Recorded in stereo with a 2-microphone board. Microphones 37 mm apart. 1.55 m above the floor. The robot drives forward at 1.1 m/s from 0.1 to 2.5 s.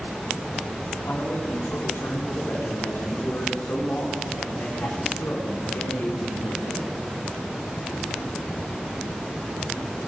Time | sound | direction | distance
1.1 | a man speaking | 85° left | 3.5 m